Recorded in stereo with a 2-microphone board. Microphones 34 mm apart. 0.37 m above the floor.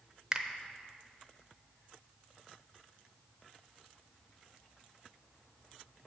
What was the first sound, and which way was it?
A finger snap, 25° right (ahead or behind).